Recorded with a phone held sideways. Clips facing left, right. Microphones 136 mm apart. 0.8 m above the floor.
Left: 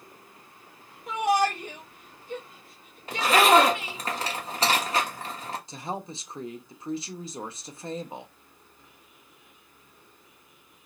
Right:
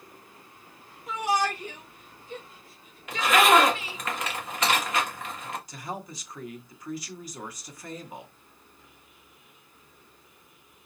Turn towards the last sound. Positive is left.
turn(degrees=25)  # may be behind; listen again after turning